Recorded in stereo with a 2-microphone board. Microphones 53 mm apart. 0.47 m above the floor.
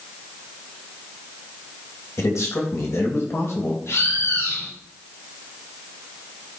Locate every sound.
2.2 s a man speaking: 65° left (ahead or behind), 3 m; by 3.8 s 55° left (ahead or behind), 2.5 m
3.9 s a bird: 70° left (ahead or behind), 7 m